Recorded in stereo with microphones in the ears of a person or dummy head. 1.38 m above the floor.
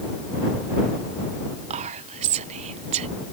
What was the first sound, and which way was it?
Whispering, 35° right (ahead or behind).